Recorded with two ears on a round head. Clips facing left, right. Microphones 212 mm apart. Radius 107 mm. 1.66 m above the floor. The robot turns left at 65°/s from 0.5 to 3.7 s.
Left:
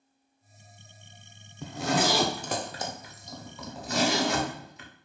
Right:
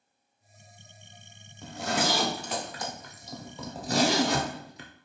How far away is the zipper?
About 0.6 m.